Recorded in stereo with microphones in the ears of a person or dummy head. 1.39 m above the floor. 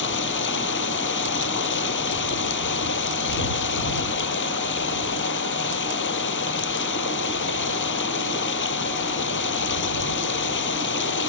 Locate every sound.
0.0 s running water: 60° left (ahead or behind)